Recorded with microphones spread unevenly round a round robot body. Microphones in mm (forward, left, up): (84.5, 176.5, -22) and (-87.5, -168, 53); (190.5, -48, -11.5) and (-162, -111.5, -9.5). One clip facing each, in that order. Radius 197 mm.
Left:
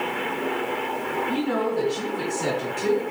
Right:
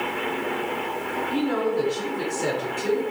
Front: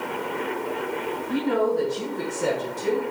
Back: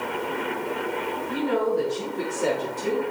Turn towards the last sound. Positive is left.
turn(degrees=70)